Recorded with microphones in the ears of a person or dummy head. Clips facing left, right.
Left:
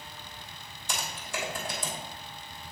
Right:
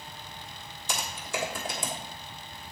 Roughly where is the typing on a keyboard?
Right.